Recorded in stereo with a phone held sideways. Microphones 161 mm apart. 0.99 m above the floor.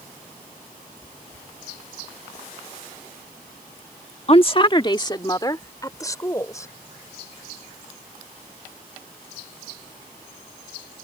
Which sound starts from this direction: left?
A woman speaking, at 4.3 s.